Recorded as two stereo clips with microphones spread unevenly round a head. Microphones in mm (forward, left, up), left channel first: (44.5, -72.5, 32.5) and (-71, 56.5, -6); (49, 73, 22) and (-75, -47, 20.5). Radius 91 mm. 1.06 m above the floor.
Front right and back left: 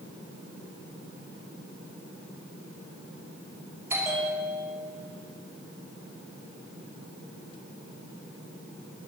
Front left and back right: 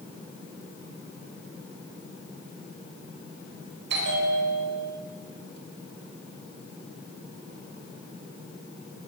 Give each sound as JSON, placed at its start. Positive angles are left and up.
{"t": 3.9, "sound": "a bell", "azimuth_deg": -150, "distance_m": 5.5}